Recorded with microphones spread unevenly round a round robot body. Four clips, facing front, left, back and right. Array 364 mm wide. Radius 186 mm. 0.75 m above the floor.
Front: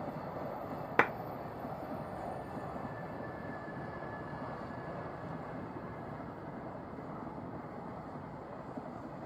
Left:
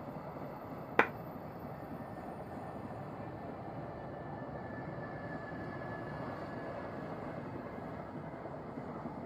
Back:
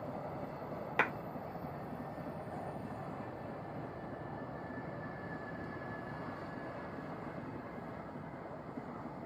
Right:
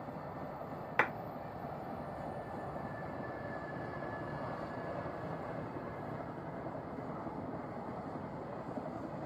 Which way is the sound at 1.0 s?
50° left.